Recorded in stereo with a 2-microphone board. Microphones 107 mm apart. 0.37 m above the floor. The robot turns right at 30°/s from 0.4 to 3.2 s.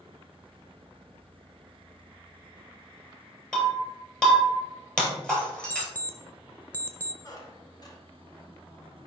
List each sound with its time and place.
3.5 s breaking glass: 10° left (ahead or behind), 2.5 m
5.7 s an alarm clock: 20° left (ahead or behind), 0.6 m
7.2 s a squeak: 40° left (ahead or behind), 1.2 m